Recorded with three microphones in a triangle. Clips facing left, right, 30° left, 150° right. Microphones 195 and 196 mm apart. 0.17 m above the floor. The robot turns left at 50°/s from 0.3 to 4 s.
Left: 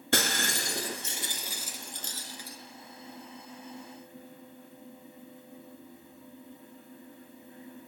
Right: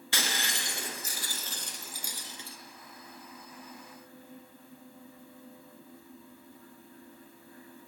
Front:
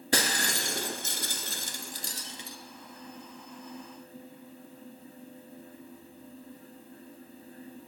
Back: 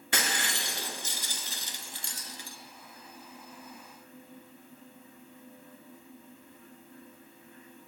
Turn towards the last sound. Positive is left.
turn(degrees=-110)